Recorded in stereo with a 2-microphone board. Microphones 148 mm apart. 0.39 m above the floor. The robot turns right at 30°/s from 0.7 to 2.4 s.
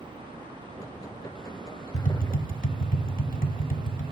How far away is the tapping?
About 1.0 m.